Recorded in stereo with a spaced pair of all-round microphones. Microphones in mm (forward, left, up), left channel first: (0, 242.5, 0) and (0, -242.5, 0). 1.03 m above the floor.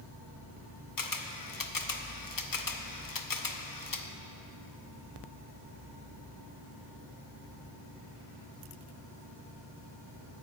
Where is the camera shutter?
45° left (ahead or behind), 0.6 m.